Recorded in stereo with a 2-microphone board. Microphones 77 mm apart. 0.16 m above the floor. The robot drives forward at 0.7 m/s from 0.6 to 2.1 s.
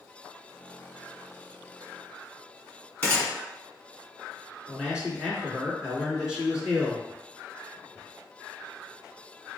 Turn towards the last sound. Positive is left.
turn(degrees=-10)  # may be behind; listen again after turning